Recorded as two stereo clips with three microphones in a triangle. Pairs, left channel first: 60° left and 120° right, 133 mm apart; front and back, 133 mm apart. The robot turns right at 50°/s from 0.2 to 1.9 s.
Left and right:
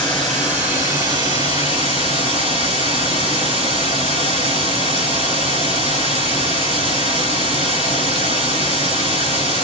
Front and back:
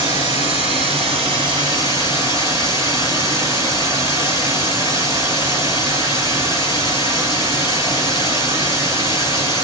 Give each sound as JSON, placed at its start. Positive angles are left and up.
{"t": 0.0, "sound": "running water", "azimuth_deg": 145, "distance_m": 1.9}